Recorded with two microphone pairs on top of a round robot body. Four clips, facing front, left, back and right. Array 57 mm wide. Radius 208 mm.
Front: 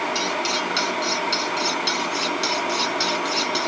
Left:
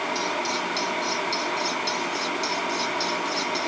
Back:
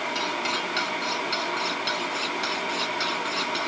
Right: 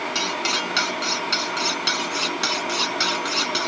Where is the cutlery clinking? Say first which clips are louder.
Right 2 dB, front 3 dB; 95° right.